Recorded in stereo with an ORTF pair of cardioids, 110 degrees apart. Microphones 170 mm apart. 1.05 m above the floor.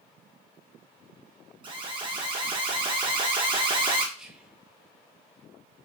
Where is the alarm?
30° right, 1.0 m.